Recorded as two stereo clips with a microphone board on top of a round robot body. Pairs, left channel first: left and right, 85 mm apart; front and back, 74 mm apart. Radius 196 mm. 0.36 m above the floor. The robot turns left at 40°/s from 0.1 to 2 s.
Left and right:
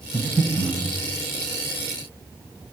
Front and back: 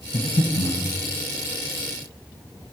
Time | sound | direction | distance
0.1 | breathing | 5° left | 2.0 m